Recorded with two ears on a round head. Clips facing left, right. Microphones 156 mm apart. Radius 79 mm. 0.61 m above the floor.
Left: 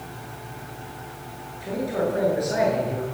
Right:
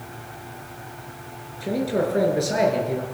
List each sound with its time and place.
1.6 s a man speaking: 35° right (ahead or behind), 8.5 m; by 3.0 s 30° right (ahead or behind), 8.5 m